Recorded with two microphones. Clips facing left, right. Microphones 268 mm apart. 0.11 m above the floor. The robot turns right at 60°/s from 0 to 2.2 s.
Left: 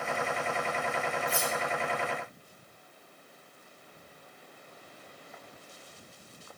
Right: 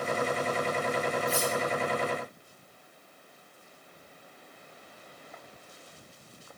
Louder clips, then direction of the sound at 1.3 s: Right 4 dB; 50° right (ahead or behind).